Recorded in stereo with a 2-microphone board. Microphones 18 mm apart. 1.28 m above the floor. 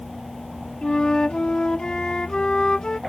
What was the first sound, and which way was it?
A flute, 55° left (ahead or behind).